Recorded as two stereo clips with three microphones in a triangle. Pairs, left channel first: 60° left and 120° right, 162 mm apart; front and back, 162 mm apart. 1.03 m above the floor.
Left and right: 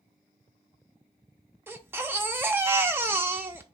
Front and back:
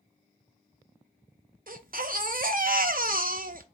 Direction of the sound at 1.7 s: 165° left.